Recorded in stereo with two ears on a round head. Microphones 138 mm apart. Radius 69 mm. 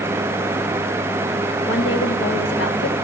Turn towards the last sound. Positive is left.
turn(degrees=85)